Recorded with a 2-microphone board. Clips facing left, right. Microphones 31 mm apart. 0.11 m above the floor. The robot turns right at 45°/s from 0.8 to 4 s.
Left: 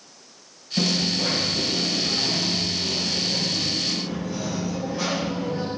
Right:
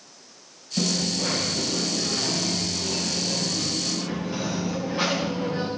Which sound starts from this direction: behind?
A dropped coin, at 0.8 s.